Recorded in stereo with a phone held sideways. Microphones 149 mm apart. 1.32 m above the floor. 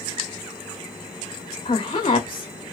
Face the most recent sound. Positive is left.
turn(degrees=45)  # may be behind; listen again after turning